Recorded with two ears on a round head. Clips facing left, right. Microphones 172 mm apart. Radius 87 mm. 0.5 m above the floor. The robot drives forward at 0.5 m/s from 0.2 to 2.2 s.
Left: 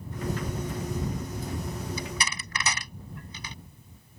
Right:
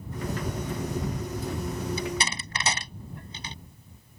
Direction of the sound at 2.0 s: 25° right (ahead or behind).